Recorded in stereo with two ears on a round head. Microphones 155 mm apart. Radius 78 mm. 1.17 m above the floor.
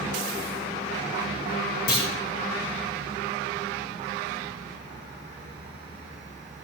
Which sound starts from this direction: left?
A clunk, at 1.9 s.